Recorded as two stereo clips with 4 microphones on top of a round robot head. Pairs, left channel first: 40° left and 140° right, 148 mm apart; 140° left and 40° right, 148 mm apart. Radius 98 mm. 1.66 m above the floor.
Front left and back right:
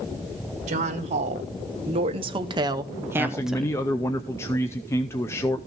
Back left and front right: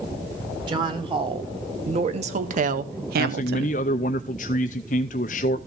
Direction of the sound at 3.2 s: 110° left.